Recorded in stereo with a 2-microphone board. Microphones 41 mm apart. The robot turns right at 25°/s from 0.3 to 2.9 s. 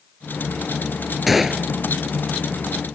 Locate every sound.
1.3 s a gunshot: centre (ahead or behind); by 1.7 s 10° right (ahead or behind)